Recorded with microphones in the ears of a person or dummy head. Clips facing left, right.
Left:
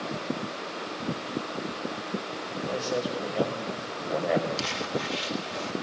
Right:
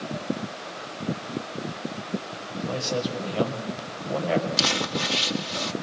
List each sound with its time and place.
2.6 s a man speaking: 10° left (ahead or behind), 6 m
4.6 s crumpling: 80° right, 1.6 m